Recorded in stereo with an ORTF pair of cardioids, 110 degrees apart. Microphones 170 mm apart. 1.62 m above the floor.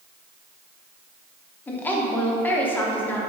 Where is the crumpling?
I don't hear crumpling.